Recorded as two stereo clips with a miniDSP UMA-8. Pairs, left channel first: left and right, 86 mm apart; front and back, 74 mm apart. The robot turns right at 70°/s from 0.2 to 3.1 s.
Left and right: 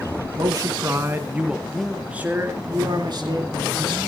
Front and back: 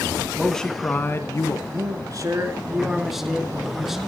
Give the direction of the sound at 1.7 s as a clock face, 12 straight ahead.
7 o'clock.